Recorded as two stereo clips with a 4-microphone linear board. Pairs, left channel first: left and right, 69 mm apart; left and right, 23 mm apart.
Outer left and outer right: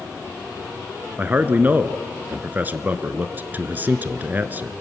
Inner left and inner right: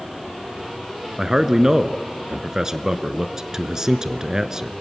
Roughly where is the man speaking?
Right.